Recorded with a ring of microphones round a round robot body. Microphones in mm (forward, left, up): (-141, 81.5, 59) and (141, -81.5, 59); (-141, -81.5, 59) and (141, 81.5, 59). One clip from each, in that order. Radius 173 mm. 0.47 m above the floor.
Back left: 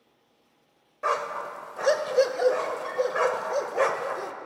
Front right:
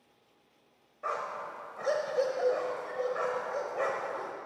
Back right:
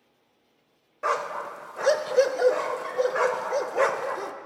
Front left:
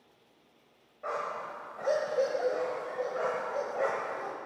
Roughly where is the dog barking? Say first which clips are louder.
Back left 7 dB, back right 7 dB; behind right.